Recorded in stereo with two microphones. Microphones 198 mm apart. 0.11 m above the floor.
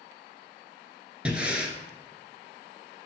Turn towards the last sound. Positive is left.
turn(degrees=-5)  # may be behind; listen again after turning